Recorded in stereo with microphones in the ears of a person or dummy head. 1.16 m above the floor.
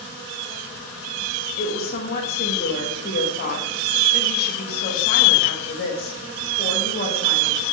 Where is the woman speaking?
55° left (ahead or behind), 1.5 m.